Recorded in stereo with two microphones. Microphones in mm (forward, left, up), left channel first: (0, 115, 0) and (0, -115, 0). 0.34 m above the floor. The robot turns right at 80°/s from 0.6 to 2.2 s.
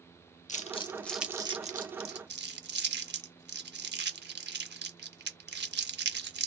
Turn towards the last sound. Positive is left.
turn(degrees=-50)  # may be behind; listen again after turning